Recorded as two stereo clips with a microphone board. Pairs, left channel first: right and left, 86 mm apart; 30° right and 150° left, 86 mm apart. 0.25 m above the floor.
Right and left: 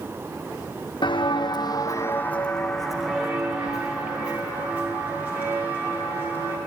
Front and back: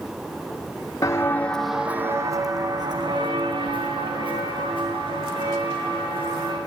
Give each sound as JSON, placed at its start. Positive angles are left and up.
{"t": 1.0, "sound": "footsteps", "azimuth_deg": -80, "distance_m": 0.7}